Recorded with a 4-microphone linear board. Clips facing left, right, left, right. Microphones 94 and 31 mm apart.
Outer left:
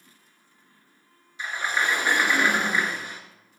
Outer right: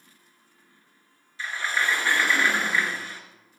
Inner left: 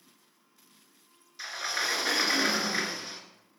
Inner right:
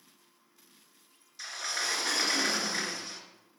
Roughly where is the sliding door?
Centre.